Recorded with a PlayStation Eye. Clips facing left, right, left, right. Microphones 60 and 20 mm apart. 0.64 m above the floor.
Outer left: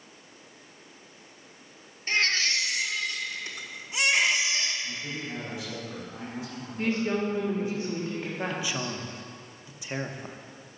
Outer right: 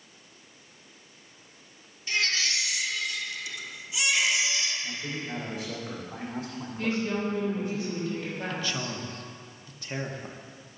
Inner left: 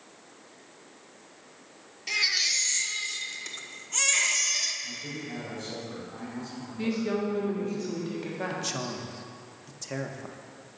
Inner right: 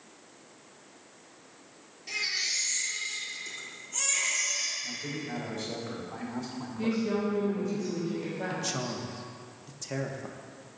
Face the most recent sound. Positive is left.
turn(degrees=10)  # may be behind; listen again after turning